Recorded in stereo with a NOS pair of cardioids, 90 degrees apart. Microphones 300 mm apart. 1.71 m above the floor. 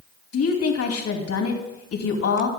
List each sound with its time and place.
0.3 s a woman speaking: 50° left, 3 m